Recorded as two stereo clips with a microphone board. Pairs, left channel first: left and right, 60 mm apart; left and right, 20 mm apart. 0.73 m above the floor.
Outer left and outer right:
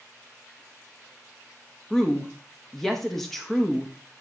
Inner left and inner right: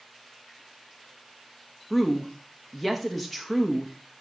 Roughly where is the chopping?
I don't hear chopping.